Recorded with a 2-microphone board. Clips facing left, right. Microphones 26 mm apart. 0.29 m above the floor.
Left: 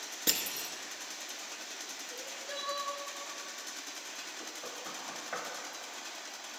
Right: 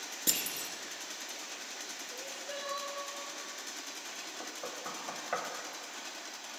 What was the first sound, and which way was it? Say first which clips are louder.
Crushing: left 1 dB; 15° left (ahead or behind).